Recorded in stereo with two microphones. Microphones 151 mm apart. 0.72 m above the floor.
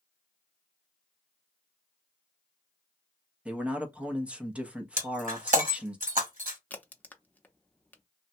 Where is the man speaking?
10° right (ahead or behind), 0.6 m.